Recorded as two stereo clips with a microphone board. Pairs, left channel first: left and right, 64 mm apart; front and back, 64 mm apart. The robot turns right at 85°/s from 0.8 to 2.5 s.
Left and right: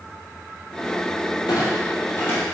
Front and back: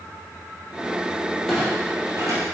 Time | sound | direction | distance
1.5 | a clunk | 85° left | 3 m